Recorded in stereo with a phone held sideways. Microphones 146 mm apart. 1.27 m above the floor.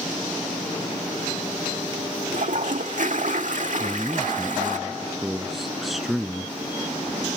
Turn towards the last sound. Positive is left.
turn(degrees=0)  # may be behind; listen again after turning